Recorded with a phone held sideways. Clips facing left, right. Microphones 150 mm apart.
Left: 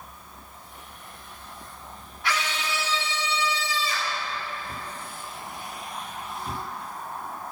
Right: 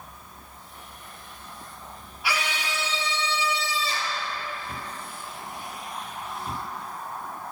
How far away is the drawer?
I don't hear a drawer.